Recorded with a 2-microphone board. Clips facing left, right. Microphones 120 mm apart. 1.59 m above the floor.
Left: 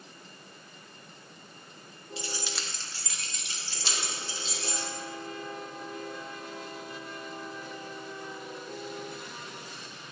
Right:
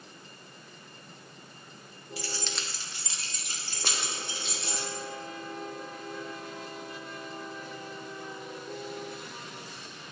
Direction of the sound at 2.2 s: 25° left (ahead or behind).